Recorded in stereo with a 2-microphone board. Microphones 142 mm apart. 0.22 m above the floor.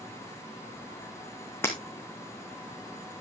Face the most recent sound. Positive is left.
turn(degrees=15)  # may be behind; listen again after turning